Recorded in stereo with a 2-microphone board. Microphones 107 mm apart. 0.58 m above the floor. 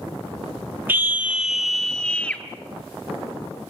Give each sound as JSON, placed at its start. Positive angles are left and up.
{"t": 0.9, "sound": "a scream", "side_deg": -20, "distance_m": 1.0}